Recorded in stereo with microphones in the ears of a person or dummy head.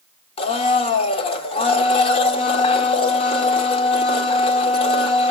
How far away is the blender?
About 1.1 m.